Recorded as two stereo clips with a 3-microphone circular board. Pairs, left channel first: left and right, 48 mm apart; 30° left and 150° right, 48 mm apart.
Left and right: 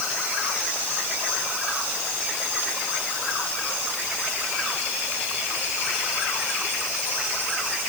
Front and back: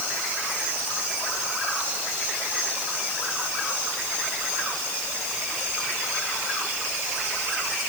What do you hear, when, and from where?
Only background noise.